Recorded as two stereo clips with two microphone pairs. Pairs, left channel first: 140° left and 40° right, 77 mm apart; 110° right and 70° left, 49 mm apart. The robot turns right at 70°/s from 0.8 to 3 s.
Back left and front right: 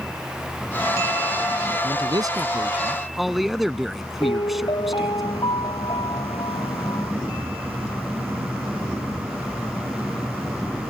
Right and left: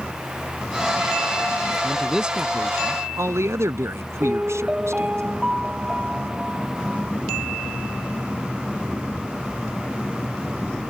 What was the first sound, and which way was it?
A man speaking, 30° right.